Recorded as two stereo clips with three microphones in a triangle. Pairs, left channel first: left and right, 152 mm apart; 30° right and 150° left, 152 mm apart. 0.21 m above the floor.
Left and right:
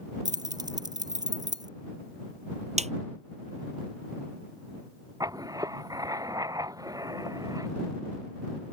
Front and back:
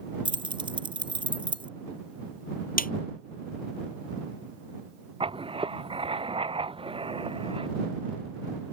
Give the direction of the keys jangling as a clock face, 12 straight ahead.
5 o'clock.